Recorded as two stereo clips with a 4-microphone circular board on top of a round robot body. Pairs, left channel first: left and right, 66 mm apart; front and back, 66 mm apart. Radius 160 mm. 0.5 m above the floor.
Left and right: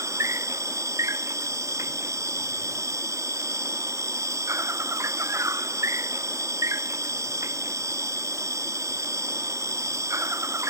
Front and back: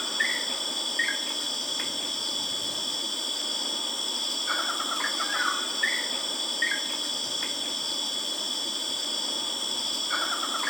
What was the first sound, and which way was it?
An insect, 85° right.